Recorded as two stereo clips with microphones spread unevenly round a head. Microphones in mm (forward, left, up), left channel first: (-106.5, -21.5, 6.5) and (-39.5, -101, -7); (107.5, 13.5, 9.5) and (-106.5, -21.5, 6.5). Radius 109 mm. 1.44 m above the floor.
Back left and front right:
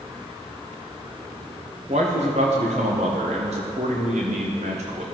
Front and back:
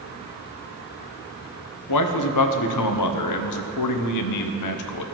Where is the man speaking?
15° left, 0.7 m.